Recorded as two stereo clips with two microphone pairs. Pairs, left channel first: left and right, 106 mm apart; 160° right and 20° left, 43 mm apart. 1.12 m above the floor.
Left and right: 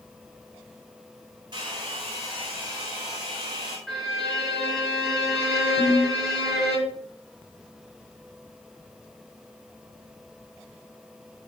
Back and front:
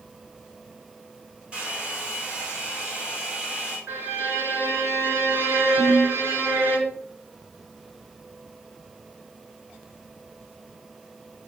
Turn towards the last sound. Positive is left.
turn(degrees=-65)